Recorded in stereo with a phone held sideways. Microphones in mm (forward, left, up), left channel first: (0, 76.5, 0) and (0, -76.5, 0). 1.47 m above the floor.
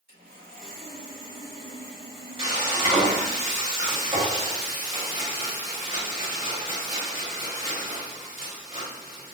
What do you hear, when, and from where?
0.1 s sawing: 60° right (ahead or behind), 1.7 m
2.4 s frying: 30° right (ahead or behind), 1.5 m